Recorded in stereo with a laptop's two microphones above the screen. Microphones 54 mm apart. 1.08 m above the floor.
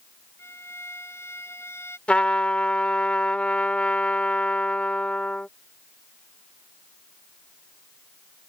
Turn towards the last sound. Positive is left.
turn(degrees=20)  # may be behind; listen again after turning